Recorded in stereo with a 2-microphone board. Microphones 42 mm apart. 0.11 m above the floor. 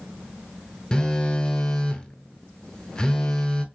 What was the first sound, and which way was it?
A phone buzzing, 25° left (ahead or behind).